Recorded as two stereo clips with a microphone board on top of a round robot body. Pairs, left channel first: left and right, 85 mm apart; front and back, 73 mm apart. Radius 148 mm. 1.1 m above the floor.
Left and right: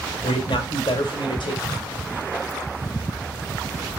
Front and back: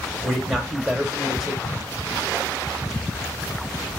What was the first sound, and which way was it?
A man speaking, 95° left.